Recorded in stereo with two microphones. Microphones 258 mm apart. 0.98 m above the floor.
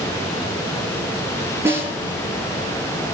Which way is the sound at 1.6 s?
10° right (ahead or behind).